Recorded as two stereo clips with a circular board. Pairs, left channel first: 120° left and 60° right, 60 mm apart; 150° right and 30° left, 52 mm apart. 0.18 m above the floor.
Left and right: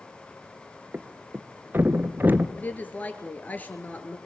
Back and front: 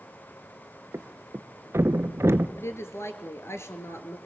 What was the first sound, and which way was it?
A thud, 5° right.